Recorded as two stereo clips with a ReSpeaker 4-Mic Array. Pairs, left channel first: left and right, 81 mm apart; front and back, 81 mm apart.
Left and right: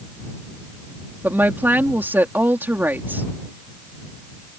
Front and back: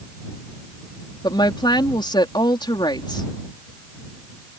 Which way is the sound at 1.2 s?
25° right.